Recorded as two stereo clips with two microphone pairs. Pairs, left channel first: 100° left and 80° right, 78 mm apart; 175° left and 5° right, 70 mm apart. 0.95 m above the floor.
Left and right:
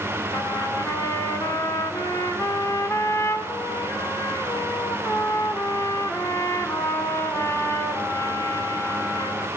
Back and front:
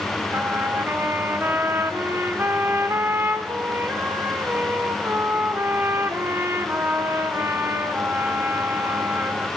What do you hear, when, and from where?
0.3 s a trumpet: 50° left, 2 m